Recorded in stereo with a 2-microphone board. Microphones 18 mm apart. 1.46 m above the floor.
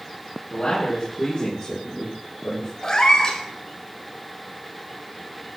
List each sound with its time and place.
0.5 s a man speaking: 55° left (ahead or behind), 3.5 m; by 2.7 s 40° left (ahead or behind), 5.5 m
2.8 s a cat meowing: 40° left (ahead or behind), 1.5 m